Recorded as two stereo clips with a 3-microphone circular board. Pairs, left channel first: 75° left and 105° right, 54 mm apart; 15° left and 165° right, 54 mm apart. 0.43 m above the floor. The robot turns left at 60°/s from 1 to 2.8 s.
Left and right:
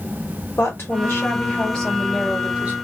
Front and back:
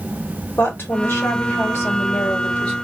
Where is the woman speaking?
50° left, 1.8 m; by 2.7 s 55° right, 1.8 m.